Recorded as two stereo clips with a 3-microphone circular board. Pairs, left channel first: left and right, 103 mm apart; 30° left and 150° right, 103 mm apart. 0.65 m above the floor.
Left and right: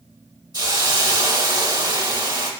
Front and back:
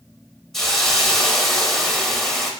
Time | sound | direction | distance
0.5 | a hiss | 55° right | 0.6 m